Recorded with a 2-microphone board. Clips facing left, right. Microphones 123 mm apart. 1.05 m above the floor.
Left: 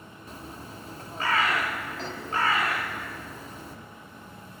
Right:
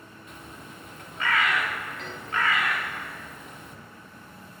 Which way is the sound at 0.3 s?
35° left (ahead or behind).